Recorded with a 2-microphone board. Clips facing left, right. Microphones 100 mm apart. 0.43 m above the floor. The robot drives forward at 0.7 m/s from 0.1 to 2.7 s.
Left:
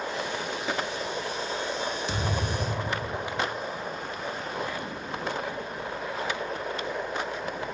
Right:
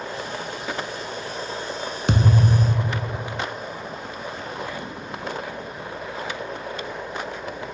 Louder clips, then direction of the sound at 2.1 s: Right 8 dB; 70° right (ahead or behind).